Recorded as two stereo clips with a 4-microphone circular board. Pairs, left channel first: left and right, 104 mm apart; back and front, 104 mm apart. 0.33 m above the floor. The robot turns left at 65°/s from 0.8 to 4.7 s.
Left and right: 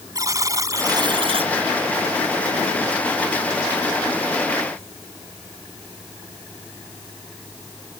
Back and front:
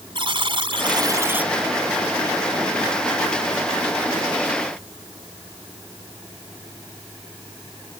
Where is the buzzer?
35° right; by 1.5 s 80° right.